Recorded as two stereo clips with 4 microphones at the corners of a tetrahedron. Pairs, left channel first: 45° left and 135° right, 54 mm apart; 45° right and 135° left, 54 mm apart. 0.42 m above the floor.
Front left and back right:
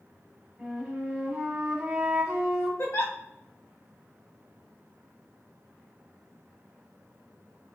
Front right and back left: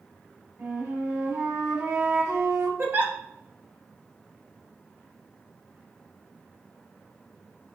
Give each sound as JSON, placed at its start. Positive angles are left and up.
{"t": 0.6, "sound": "a flute", "azimuth_deg": 155, "distance_m": 1.1}
{"t": 2.8, "sound": "a giggle", "azimuth_deg": 80, "distance_m": 0.6}